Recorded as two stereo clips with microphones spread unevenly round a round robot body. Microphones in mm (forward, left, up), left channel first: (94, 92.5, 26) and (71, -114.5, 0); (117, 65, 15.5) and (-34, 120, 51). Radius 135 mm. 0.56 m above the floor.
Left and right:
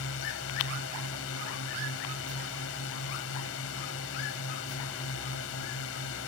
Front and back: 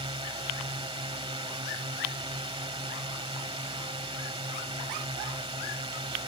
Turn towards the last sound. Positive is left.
turn(degrees=105)